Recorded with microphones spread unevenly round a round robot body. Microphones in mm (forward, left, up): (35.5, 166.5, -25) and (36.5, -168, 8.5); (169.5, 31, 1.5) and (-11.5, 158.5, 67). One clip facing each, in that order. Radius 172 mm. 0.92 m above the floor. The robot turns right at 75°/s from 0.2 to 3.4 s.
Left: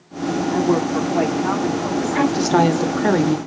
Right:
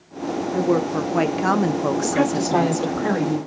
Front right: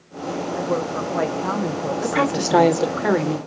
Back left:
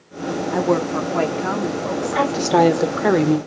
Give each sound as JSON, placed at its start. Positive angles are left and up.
{"t": 0.5, "sound": "a woman speaking", "azimuth_deg": 160, "distance_m": 0.7}
{"t": 2.0, "sound": "a woman speaking", "azimuth_deg": 5, "distance_m": 1.1}